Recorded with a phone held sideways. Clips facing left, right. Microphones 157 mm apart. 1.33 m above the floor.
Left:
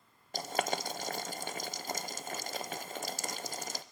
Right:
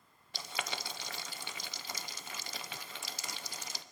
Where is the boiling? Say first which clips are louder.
Left 8 dB; 50° left (ahead or behind), 0.7 m.